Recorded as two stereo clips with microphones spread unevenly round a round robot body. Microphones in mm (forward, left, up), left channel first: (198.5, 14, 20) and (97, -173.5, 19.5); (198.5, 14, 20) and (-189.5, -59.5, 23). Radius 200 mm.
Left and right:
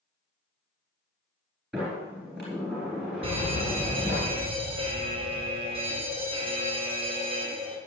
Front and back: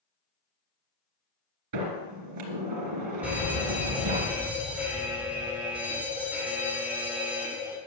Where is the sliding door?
155° left, 3 m.